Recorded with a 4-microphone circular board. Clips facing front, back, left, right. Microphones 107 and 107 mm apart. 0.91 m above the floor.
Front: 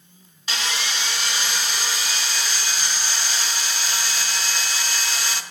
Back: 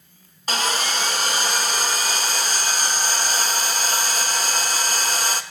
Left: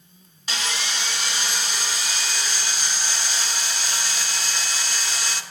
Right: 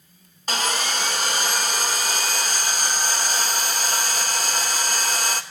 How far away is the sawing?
About 0.7 m.